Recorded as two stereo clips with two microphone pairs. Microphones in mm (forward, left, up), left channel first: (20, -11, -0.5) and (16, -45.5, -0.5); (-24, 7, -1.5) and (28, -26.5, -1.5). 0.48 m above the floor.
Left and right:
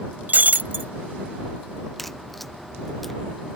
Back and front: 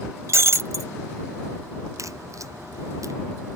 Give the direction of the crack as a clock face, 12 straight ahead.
12 o'clock.